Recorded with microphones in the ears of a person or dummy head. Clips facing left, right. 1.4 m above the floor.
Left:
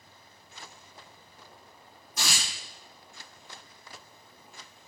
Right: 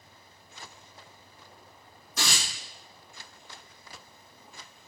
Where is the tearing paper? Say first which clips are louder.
Right 2 dB; 55° right (ahead or behind), 3.5 m.